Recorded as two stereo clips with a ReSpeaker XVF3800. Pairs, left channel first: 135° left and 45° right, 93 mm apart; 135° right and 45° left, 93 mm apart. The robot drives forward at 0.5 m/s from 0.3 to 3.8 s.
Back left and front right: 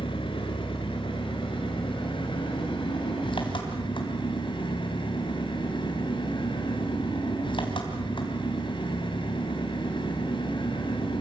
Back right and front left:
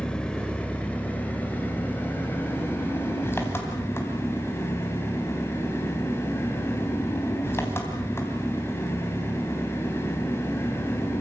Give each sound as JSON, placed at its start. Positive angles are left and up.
{"t": 0.0, "sound": "an engine running", "azimuth_deg": 145, "distance_m": 2.0}